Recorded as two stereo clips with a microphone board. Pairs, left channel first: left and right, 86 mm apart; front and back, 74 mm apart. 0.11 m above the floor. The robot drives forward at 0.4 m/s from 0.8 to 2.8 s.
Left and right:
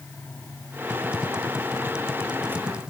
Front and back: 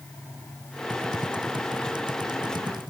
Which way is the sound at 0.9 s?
170° right.